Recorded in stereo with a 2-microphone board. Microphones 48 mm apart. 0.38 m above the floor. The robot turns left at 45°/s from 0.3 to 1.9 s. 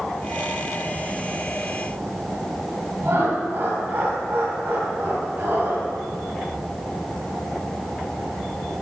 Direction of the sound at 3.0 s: 50° right (ahead or behind).